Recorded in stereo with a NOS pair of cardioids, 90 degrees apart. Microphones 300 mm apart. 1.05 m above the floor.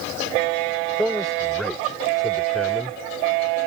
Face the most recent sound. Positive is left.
turn(degrees=0)